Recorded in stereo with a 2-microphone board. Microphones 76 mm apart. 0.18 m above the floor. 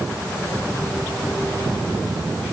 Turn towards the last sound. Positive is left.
No sound to turn to.